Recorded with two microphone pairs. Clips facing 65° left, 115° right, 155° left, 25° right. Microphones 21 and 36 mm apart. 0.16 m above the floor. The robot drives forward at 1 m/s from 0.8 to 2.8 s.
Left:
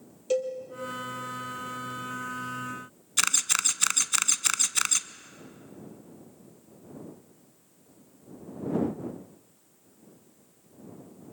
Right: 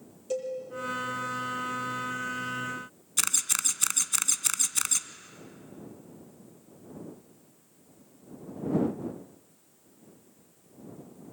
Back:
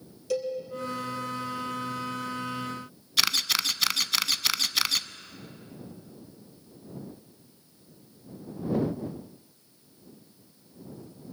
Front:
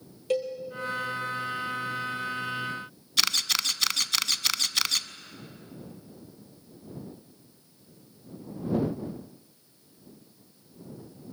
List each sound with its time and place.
0.3 s a cowbell: 15° left, 3 m
3.2 s a camera shutter: 65° left, 0.5 m